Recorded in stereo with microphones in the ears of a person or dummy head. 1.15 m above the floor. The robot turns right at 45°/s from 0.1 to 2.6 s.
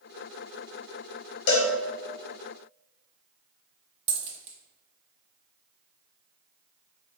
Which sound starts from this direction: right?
A dropped coin, at 4.1 s.